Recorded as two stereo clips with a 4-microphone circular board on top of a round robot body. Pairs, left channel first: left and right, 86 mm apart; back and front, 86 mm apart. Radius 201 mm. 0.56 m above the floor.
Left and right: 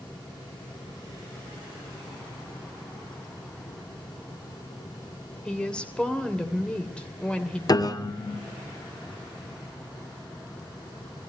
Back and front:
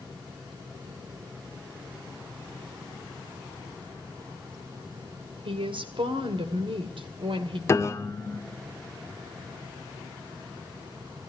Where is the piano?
125° left, 1.5 m.